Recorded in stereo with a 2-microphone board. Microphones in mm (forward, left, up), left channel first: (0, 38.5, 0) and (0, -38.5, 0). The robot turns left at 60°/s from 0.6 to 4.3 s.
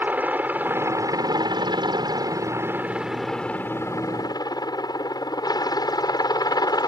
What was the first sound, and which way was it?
A helicopter, 25° right.